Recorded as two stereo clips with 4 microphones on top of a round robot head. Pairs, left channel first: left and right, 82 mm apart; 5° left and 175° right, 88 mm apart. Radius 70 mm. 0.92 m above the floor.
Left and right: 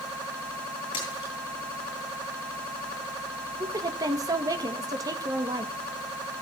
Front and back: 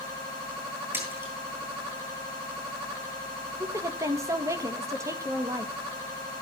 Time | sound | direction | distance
0.9 | a splash | 120° left | 8 m
3.6 | a woman speaking | 125° right | 1.5 m